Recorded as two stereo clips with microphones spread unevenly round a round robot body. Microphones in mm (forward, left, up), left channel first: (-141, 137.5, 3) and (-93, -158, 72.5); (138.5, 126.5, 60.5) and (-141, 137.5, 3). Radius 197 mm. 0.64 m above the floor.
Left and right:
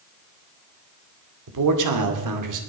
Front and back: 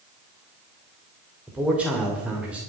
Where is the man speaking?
100° right, 2.5 m.